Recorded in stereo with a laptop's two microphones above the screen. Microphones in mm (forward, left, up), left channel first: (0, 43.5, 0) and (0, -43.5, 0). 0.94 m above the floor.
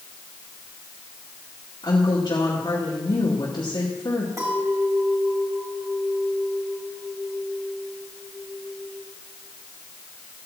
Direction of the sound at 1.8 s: 60° left (ahead or behind).